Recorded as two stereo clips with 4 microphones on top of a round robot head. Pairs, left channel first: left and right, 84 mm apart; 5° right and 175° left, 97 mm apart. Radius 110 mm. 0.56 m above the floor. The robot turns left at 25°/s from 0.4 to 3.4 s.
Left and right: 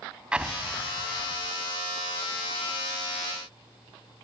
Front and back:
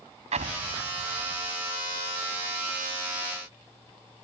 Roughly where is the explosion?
Behind.